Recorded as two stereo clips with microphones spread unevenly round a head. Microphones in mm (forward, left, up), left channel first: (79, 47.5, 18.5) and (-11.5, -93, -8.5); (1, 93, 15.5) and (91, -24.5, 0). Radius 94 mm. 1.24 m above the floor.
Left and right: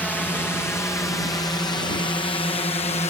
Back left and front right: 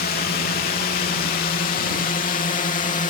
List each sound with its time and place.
0.0 s a drone: 145° left; by 3.1 s 110° left